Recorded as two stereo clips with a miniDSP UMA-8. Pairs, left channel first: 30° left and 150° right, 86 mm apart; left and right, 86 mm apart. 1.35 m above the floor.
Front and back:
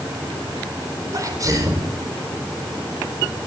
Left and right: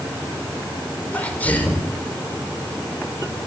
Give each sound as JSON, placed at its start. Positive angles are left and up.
{"t": 1.1, "sound": "a sneeze", "azimuth_deg": 160, "distance_m": 4.0}